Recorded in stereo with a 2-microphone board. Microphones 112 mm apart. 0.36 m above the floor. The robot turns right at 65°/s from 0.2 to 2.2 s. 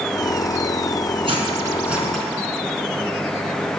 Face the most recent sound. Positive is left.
turn(degrees=10)  # may be behind; listen again after turning